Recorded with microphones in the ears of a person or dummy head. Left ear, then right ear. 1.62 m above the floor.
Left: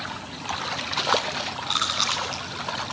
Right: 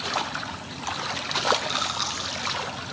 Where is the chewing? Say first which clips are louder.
Left 3 dB; 25° left (ahead or behind), 3 m.